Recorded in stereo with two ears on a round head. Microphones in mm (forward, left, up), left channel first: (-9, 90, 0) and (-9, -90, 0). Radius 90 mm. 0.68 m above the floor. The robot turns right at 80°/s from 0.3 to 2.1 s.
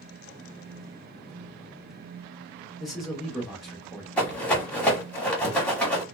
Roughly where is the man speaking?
Centre.